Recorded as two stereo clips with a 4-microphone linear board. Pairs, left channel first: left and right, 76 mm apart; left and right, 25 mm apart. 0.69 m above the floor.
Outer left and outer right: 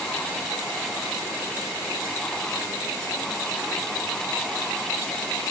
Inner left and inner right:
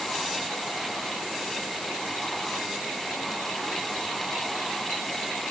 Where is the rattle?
No rattle in this recording.